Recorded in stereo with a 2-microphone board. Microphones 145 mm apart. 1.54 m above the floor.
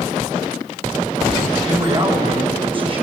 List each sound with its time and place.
1.6 s a man speaking: 35° right (ahead or behind), 6 m